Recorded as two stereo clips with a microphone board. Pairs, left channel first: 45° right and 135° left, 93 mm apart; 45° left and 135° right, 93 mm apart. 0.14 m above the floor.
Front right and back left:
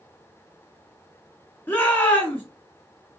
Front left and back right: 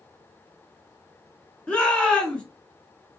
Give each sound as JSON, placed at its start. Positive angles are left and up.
{"t": 1.7, "sound": "a shout", "azimuth_deg": -15, "distance_m": 1.1}